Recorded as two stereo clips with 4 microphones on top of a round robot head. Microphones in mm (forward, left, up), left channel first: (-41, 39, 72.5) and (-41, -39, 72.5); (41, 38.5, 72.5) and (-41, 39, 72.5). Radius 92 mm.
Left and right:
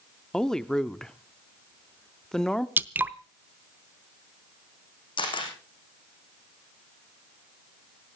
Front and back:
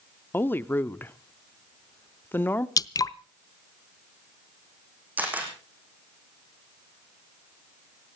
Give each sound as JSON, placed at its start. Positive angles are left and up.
{"t": 0.3, "sound": "a woman speaking", "azimuth_deg": 20, "distance_m": 0.9}
{"t": 2.8, "sound": "dripping", "azimuth_deg": -30, "distance_m": 0.7}
{"t": 5.2, "sound": "a camera shutter", "azimuth_deg": 110, "distance_m": 5.0}